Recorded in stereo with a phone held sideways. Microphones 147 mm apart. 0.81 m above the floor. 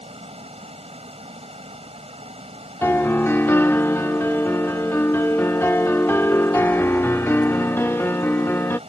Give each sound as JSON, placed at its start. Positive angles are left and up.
{"t": 0.0, "sound": "running water", "side_deg": -45}
{"t": 2.8, "sound": "a piano", "side_deg": 15}